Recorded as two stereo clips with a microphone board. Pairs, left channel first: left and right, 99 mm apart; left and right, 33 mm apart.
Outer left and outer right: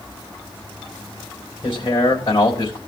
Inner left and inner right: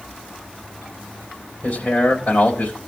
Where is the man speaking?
60° left (ahead or behind), 3.5 m.